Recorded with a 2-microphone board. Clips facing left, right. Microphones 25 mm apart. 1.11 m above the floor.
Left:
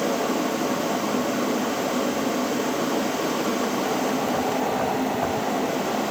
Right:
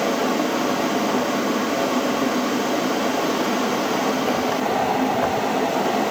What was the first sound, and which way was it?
Only background noise.